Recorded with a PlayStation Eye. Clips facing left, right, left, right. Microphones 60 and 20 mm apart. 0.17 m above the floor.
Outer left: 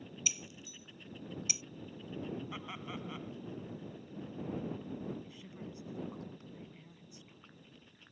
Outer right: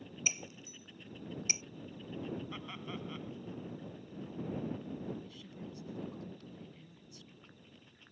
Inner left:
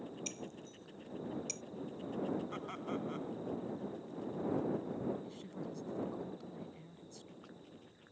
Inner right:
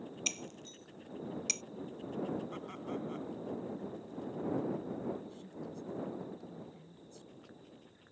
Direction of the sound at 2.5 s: 10° left (ahead or behind).